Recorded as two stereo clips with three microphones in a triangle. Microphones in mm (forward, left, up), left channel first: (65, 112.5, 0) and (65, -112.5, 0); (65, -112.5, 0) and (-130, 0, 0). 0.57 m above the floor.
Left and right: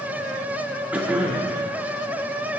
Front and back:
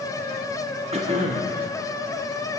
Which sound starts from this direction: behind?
Throat clearing, at 0.9 s.